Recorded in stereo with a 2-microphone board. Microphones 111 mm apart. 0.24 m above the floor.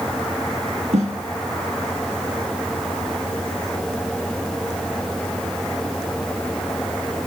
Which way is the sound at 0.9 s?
80° right.